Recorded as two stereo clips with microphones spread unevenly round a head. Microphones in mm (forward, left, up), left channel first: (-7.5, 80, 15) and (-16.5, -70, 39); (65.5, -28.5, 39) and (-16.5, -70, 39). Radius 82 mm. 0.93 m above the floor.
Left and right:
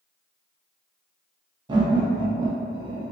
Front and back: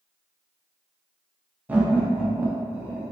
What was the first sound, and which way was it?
Laughter, 120° right.